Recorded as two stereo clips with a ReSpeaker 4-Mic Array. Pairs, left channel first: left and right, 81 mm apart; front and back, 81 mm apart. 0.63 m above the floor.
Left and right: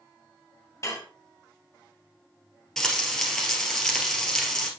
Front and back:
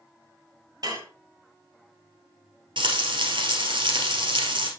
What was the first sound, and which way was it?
Dishes clattering, 140° left.